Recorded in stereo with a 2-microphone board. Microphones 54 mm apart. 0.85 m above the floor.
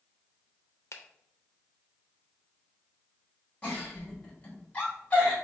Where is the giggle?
25° left (ahead or behind), 2 m.